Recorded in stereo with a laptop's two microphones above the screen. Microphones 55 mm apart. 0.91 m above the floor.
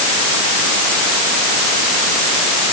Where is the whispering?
I don't hear whispering.